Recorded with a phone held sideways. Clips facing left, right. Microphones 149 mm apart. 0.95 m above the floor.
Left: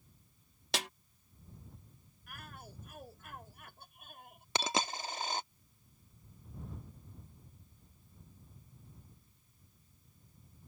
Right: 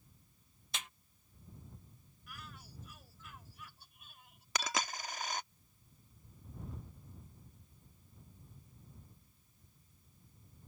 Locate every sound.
0.7 s a snare drum: 80° left
2.3 s a shout: 55° left (ahead or behind)
4.5 s a dropped coin: 25° left (ahead or behind)